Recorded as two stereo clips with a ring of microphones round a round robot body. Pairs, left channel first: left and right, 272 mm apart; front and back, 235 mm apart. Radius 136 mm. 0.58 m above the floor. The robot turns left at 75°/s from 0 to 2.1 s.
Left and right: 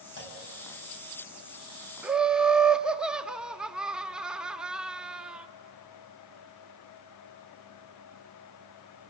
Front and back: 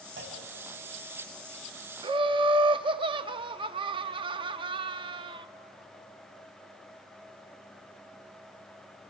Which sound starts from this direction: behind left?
A clunk, at 0.2 s.